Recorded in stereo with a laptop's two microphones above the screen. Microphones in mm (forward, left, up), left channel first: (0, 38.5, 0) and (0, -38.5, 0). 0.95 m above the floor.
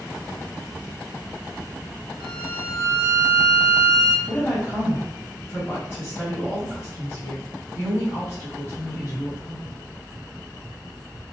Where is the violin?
40° right (ahead or behind), 1.0 m.